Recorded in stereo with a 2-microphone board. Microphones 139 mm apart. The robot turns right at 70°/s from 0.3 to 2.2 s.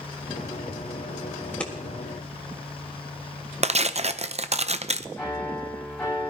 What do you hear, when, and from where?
1.4 s scissors: 20° left (ahead or behind), 1.6 m; by 1.7 s centre (ahead or behind), 1.6 m
3.6 s tearing paper: 50° right (ahead or behind), 0.5 m
5.2 s a piano: 5° left (ahead or behind), 5.5 m